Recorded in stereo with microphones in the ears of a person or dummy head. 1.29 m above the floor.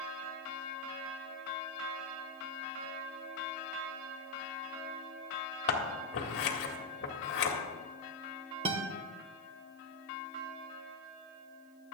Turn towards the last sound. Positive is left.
turn(degrees=-30)  # may be behind; listen again after turning